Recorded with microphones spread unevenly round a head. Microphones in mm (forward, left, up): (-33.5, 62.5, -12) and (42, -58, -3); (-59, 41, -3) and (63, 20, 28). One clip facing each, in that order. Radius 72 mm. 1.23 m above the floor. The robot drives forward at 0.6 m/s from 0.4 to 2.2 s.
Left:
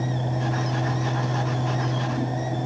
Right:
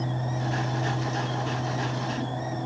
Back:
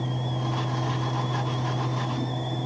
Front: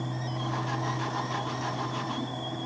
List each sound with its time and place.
Only background noise.